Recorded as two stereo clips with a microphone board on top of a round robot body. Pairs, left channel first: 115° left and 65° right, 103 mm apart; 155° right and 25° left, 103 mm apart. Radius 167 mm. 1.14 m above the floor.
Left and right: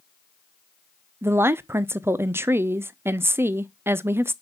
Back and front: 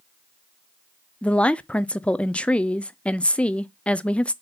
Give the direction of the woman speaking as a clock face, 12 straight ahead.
3 o'clock.